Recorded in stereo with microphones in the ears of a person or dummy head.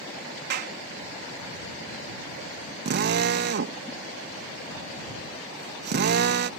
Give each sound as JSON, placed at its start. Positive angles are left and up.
{"t": 0.5, "sound": "a clap", "side_deg": -60}
{"t": 2.9, "sound": "a drill", "side_deg": -60}